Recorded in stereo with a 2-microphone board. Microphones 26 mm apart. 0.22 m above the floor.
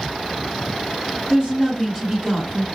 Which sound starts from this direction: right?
A woman speaking, at 1.3 s.